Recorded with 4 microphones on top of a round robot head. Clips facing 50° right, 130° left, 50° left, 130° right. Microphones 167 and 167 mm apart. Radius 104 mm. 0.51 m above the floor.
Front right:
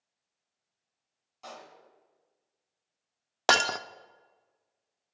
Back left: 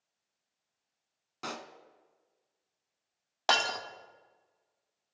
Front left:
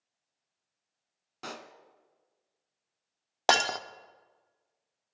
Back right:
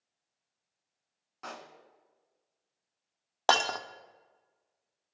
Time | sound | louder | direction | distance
1.4 | a pop | back left 4 dB, front left 2 dB | 105° left | 1.1 m
3.5 | breaking glass | front right 4 dB, front left 1 dB | 25° right | 0.6 m